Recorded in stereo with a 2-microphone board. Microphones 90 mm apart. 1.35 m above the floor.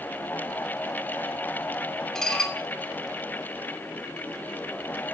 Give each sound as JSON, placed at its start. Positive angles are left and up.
{"t": 2.1, "sound": "dishes clattering", "side_deg": 5, "distance_m": 2.5}